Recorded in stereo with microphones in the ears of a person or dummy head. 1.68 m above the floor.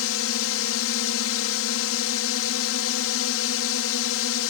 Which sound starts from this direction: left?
A drone, at 0.0 s.